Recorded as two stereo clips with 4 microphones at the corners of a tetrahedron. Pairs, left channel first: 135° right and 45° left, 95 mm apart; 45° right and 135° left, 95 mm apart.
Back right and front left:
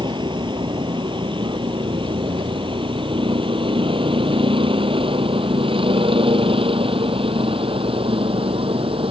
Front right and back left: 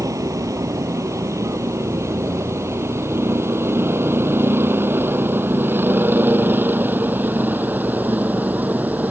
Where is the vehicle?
80° left; by 9.1 s 60° left.